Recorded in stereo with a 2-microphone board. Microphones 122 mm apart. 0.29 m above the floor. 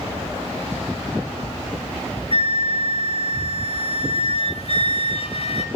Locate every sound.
2.3 s a flute: 55° left (ahead or behind), 0.8 m